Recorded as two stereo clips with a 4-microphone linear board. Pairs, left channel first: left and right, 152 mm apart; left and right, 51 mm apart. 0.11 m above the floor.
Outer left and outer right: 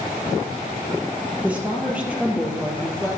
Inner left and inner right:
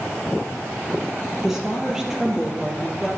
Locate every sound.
1.4 s a woman speaking: 10° right (ahead or behind), 3 m